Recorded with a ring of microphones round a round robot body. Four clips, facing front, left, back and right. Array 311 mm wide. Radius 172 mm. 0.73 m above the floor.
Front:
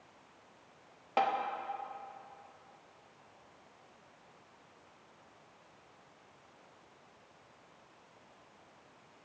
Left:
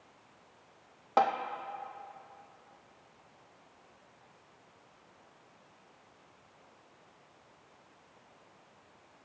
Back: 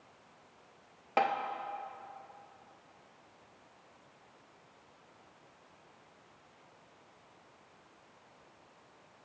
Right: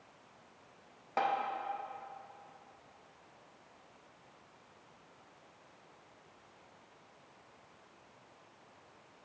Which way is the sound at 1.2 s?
110° left.